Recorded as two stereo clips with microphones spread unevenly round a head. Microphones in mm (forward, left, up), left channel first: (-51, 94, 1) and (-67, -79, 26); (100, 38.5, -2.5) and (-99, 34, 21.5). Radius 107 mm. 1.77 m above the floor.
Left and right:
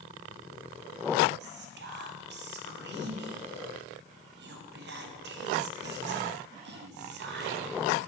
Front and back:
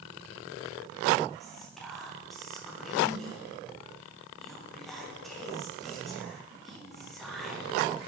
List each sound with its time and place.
1.4 s whispering: 90° right, 1.0 m